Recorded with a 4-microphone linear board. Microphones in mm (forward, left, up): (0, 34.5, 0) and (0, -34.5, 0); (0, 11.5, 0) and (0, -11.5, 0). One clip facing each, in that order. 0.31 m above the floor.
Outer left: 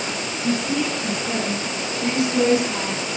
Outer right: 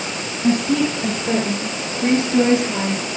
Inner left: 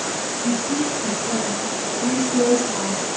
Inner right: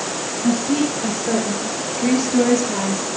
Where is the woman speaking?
60° right (ahead or behind), 5 m; by 3.1 s 15° right (ahead or behind), 5 m.